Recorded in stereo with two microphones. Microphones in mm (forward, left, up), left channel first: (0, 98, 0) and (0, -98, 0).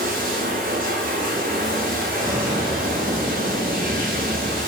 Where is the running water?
45° right (ahead or behind), 8 m.